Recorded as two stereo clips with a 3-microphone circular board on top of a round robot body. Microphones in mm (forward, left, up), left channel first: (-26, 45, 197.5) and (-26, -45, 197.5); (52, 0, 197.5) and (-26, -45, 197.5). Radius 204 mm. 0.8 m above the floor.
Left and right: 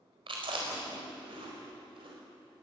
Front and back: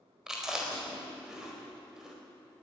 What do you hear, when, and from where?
0.3 s chewing: 65° right, 4.5 m